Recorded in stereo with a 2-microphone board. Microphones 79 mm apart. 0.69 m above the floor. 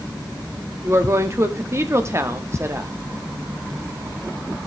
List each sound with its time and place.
0.8 s a woman speaking: 35° right (ahead or behind), 1.2 m